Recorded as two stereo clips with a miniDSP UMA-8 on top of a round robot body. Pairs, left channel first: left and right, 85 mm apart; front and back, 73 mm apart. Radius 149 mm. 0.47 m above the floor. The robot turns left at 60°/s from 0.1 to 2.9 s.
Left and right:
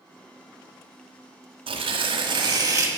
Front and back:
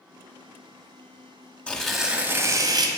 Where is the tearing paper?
75° right, 1.0 m; by 2.9 s 145° right, 1.0 m.